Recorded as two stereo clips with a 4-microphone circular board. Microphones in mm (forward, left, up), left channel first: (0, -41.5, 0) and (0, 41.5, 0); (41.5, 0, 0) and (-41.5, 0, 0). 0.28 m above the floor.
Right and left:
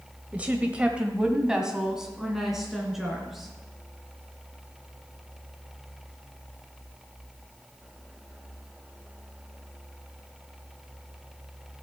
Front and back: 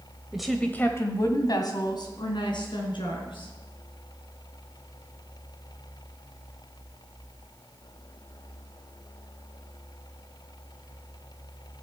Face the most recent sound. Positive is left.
turn(degrees=5)